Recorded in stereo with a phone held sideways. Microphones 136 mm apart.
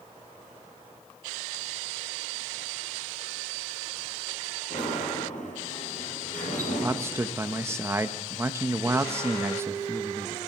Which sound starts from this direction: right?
A man speaking, at 6.8 s.